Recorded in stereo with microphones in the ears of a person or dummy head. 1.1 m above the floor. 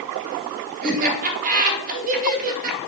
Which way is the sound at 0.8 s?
40° right (ahead or behind).